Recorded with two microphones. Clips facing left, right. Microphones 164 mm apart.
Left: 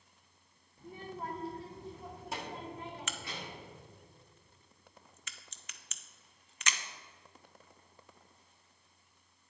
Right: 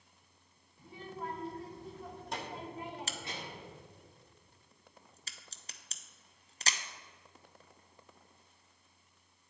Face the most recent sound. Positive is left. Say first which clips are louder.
# even
turn(degrees=-35)  # may be behind; listen again after turning